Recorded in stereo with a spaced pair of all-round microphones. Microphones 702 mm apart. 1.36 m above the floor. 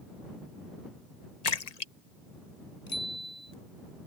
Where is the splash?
60° left (ahead or behind).